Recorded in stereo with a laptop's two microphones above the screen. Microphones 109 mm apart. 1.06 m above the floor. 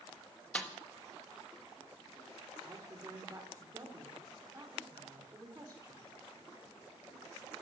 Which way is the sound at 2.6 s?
30° right (ahead or behind).